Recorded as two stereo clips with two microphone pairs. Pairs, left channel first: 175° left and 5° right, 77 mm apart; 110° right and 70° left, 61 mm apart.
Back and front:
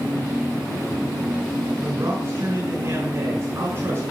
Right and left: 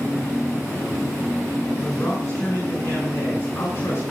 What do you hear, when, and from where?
1.8 s a man speaking: 55° right, 6.5 m